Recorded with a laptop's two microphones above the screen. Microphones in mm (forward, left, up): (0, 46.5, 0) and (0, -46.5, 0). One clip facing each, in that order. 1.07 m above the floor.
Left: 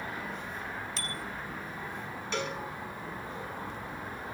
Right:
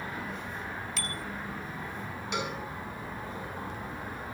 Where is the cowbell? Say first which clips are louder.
Even; 15° right (ahead or behind), 4 m.